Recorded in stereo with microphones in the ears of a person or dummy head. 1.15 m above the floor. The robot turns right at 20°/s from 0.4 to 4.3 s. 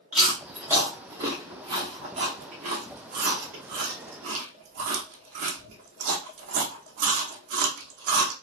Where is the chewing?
Centre (ahead or behind), 0.8 m; by 8.3 s 55° right (ahead or behind), 0.8 m.